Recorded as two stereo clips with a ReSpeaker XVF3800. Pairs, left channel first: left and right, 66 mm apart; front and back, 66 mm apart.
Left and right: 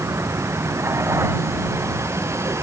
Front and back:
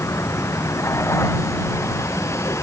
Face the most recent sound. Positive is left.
turn(degrees=-45)